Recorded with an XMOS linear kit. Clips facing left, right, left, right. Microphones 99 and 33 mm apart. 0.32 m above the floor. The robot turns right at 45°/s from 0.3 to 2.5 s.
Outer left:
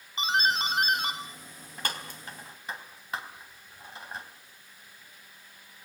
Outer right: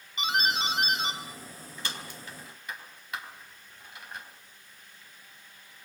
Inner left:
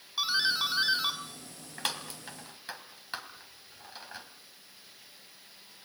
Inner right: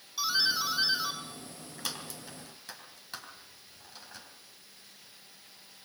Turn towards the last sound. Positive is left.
turn(degrees=30)  # may be behind; listen again after turning